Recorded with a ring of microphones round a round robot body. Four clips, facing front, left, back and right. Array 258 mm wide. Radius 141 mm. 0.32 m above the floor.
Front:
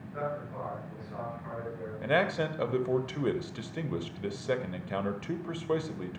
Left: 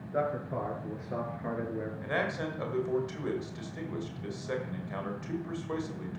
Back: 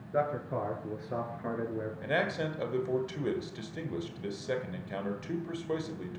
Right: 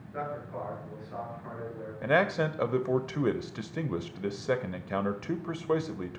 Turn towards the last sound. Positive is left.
turn(degrees=-70)